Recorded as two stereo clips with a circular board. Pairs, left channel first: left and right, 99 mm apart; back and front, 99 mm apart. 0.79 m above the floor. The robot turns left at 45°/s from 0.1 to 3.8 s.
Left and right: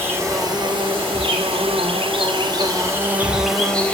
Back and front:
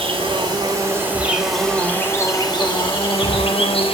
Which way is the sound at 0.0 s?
25° right.